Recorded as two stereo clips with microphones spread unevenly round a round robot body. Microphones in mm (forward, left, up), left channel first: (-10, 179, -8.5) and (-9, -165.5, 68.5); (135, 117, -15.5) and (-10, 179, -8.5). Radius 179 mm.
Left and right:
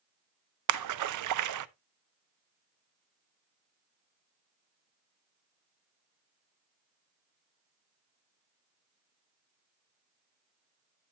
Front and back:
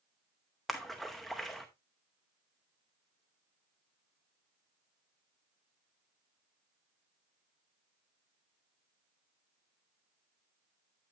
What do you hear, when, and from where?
0.7 s a splash: 110° right, 0.5 m